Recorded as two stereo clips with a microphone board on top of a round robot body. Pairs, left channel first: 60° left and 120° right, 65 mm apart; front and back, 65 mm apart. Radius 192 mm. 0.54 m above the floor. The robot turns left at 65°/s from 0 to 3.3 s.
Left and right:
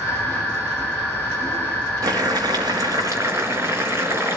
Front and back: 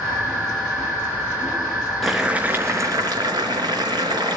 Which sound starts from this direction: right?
Boiling, at 2.0 s.